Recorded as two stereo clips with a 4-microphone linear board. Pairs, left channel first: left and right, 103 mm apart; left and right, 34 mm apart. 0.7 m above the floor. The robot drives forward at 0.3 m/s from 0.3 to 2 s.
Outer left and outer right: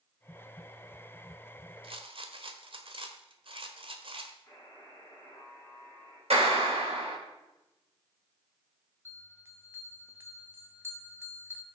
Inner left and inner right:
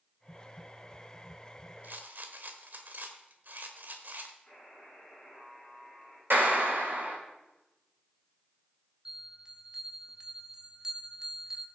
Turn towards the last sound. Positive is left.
turn(degrees=-25)  # may be behind; listen again after turning